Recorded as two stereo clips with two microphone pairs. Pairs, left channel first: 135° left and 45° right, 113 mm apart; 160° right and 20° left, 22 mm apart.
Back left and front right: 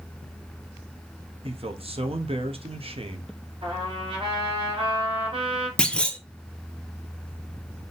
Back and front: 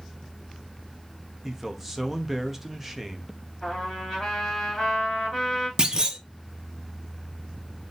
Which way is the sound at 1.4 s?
55° right.